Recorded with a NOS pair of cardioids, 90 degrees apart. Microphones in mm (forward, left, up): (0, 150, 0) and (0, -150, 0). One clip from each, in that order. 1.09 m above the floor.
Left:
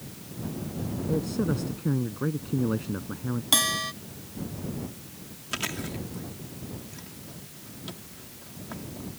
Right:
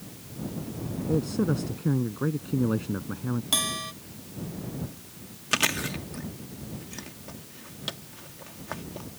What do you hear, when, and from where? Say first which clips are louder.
1.1 s a man speaking: right 2 dB; 15° right
3.5 s a bell: left 4 dB; 25° left
5.5 s chewing: right 7 dB; 60° right